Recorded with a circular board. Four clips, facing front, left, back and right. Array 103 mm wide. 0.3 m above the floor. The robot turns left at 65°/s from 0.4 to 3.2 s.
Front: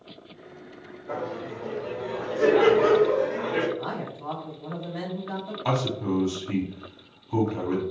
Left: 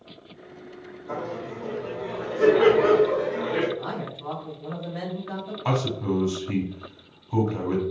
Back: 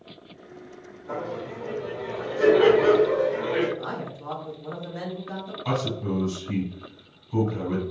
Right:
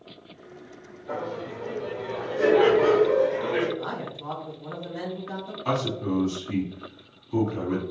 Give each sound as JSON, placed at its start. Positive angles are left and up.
{"t": 1.1, "sound": "laughter", "azimuth_deg": -75, "distance_m": 1.6}
{"t": 3.8, "sound": "a man speaking", "azimuth_deg": 40, "distance_m": 1.5}
{"t": 5.7, "sound": "a man speaking", "azimuth_deg": 50, "distance_m": 1.5}